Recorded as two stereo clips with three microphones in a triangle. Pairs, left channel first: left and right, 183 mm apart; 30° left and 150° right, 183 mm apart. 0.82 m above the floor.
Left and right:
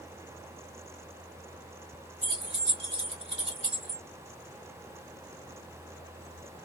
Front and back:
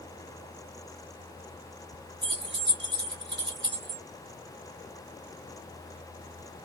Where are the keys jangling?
145° right, 1.4 m.